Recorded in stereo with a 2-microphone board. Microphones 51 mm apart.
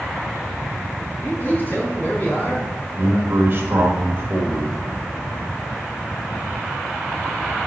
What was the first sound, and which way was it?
A man speaking, 40° left (ahead or behind).